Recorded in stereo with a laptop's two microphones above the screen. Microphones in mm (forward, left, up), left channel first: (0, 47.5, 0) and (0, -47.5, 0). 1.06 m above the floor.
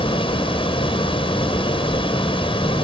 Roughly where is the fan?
Left.